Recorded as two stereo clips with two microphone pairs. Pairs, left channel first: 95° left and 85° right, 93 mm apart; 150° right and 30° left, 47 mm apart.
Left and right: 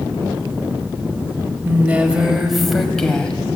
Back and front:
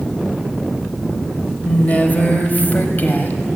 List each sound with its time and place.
1.6 s a woman speaking: 135° right, 1.4 m; by 3.4 s 175° left, 1.9 m